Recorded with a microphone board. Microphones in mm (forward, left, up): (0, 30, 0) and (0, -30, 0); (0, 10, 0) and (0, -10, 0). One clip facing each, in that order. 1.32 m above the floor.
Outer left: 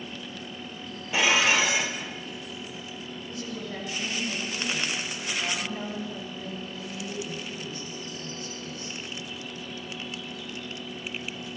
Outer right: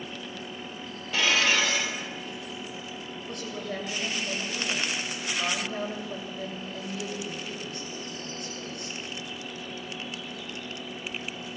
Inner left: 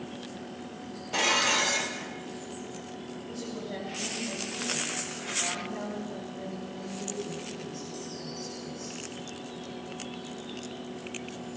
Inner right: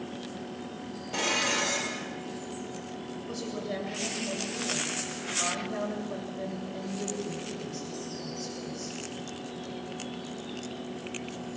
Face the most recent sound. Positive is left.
turn(degrees=-60)  # may be behind; listen again after turning